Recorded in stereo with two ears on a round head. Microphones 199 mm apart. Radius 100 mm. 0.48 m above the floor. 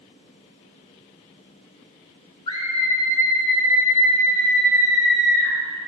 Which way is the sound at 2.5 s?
20° left (ahead or behind).